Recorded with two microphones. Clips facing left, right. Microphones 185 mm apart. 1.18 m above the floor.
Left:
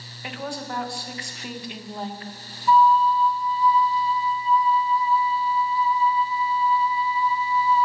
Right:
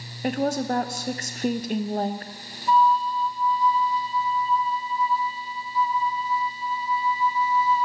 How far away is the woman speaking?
About 0.7 m.